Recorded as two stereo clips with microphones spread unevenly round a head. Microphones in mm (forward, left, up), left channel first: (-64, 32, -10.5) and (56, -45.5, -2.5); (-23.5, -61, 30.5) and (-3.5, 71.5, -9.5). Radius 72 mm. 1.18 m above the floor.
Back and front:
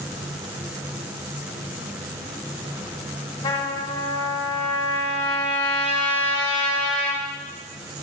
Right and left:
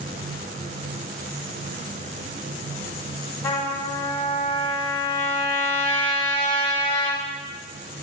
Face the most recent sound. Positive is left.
turn(degrees=-150)